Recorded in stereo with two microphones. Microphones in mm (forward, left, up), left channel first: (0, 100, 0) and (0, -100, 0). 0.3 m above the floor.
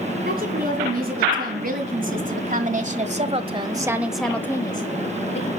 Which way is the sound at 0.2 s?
50° right (ahead or behind).